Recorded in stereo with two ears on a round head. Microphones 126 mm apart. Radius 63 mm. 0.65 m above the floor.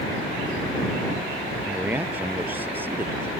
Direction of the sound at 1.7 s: 10° right (ahead or behind).